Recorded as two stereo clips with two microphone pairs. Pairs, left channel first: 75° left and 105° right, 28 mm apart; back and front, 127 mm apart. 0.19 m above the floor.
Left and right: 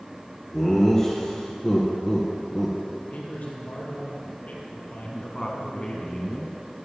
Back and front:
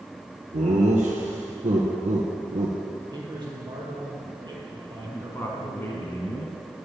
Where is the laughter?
10° left, 2.5 m.